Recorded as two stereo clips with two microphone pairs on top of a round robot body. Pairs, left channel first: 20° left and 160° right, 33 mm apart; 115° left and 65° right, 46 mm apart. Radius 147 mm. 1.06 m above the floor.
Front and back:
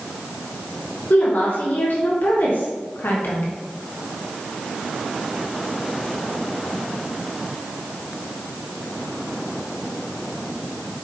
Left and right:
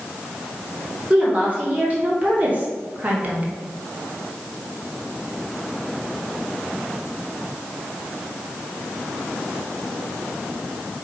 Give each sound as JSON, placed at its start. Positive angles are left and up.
{"t": 1.1, "sound": "a woman speaking", "azimuth_deg": 0, "distance_m": 3.0}